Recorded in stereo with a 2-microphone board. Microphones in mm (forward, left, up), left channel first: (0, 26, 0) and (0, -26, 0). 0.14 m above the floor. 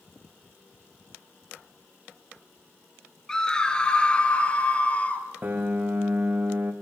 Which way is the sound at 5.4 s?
40° right (ahead or behind).